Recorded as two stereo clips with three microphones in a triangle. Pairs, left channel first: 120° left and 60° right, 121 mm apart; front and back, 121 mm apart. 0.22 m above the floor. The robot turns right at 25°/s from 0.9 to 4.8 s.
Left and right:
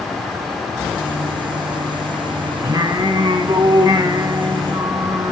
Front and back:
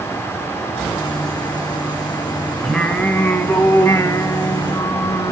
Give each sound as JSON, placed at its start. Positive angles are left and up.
{"t": 2.6, "sound": "singing", "azimuth_deg": -80, "distance_m": 1.1}